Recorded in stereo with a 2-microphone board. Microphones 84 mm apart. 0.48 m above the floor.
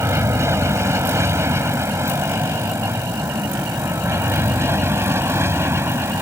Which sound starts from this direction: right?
An aircraft, at 0.0 s.